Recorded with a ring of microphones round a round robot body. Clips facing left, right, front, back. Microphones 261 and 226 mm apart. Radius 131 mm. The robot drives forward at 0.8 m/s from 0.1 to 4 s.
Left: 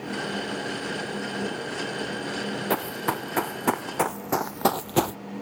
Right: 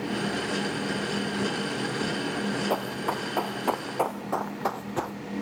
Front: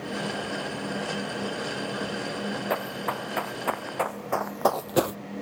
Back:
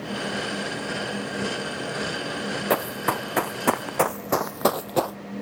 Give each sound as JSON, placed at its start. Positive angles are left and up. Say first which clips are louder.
{"t": 2.7, "sound": "running footsteps", "louder": "left 1 dB, back 5 dB", "azimuth_deg": 145, "distance_m": 1.7}